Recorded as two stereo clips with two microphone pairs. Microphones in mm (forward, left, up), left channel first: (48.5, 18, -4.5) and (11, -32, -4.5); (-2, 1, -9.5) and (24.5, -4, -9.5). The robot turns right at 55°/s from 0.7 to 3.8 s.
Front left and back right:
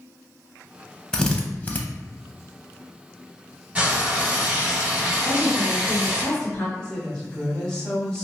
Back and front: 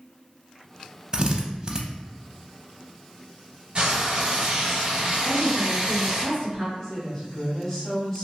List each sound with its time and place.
1.1 s a drill: 20° right, 0.5 m; by 1.8 s 20° left, 0.5 m
3.8 s frying: 55° right, 1.8 m
5.2 s a woman speaking: 10° right, 1.5 m
6.8 s a woman speaking: 120° left, 1.5 m